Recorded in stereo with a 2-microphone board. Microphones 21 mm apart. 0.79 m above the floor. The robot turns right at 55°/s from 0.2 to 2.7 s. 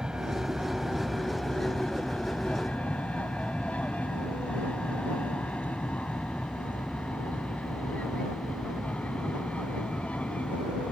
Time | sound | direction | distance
0.0 | an aircraft | 40° right (ahead or behind) | ?